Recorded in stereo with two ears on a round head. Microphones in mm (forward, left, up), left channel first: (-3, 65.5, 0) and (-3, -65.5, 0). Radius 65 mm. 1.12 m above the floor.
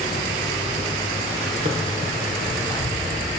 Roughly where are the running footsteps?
Right.